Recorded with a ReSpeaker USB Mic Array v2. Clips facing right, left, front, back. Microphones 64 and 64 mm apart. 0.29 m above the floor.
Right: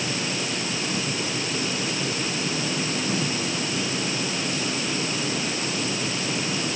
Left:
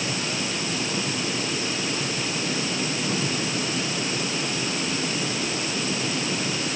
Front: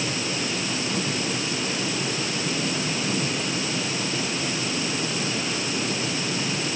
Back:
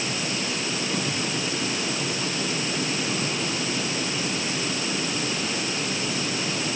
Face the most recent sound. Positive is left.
No sound to turn to.